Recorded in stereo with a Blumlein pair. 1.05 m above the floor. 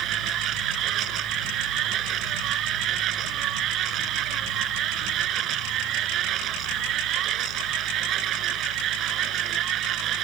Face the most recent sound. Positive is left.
turn(degrees=-30)